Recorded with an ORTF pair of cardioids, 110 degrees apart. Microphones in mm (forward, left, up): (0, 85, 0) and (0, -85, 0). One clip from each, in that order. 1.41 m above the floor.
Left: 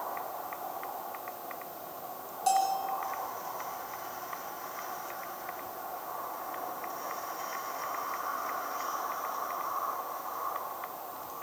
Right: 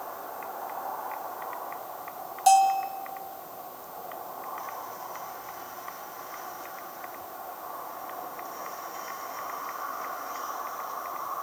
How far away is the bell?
About 3 m.